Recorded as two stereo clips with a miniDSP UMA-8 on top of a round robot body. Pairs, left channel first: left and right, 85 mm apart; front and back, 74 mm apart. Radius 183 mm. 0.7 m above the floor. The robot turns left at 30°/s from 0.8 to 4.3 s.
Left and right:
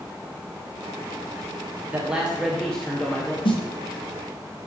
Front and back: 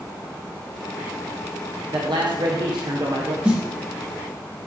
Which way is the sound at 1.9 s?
165° right.